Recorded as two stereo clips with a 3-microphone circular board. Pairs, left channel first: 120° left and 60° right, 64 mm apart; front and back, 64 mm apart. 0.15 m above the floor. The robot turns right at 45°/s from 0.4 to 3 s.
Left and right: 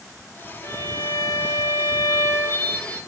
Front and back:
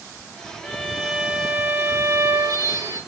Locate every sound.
0.6 s a violin: 90° left, 5 m; by 3.0 s 160° right, 5 m